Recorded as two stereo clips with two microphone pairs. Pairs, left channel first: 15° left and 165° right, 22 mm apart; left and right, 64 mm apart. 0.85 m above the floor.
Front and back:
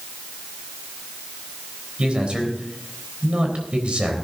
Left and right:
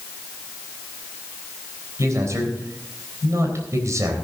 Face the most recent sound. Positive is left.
turn(degrees=-125)